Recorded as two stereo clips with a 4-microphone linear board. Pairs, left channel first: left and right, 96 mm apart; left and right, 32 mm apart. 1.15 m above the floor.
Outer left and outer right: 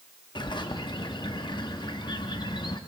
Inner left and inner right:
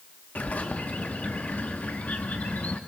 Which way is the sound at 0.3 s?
50° left (ahead or behind).